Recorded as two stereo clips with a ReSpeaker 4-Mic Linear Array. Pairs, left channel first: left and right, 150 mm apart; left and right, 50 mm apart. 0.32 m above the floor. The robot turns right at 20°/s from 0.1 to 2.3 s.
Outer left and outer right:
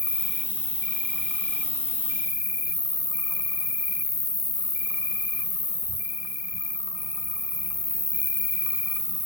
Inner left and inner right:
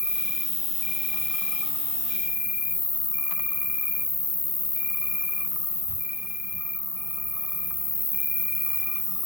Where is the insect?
130° right, 1.1 m; by 9.3 s 90° right, 1.1 m.